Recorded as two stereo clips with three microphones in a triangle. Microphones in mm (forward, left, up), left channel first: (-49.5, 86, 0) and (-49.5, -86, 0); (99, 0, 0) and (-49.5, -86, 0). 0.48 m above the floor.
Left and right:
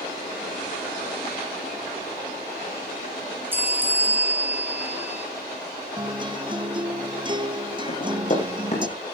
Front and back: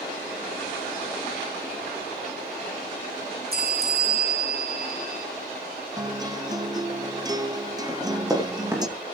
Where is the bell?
165° right, 4 m.